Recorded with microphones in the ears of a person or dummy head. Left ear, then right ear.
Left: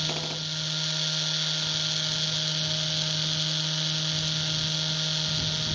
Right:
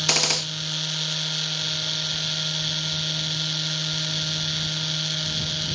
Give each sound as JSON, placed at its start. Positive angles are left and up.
{"t": 0.1, "sound": "a gunshot", "side_deg": -55}